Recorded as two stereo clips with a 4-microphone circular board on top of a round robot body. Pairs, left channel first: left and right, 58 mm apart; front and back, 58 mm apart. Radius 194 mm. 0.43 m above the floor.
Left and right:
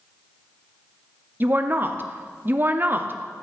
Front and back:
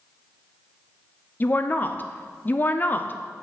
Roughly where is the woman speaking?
Ahead right.